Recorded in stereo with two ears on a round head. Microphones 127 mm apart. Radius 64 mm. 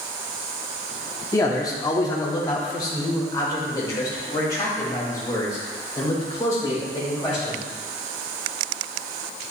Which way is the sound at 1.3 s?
20° left (ahead or behind).